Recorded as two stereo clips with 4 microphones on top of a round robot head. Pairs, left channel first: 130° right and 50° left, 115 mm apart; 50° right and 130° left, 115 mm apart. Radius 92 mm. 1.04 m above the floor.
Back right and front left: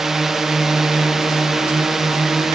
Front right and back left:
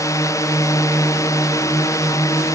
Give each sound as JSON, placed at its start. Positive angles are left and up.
{"t": 0.0, "sound": "a drone", "azimuth_deg": -35}